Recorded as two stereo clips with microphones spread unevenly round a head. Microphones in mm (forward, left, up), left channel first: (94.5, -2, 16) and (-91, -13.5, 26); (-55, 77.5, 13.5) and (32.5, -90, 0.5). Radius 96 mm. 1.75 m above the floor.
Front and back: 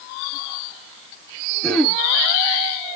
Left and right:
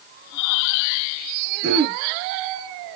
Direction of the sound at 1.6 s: 85° right.